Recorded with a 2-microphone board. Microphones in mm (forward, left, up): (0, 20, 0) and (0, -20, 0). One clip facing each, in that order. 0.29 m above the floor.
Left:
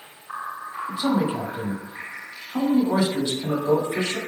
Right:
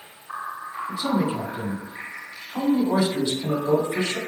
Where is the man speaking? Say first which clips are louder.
Left 1 dB; 35° left (ahead or behind), 1.7 m.